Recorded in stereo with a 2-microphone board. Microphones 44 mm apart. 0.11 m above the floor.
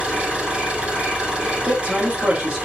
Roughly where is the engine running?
Right.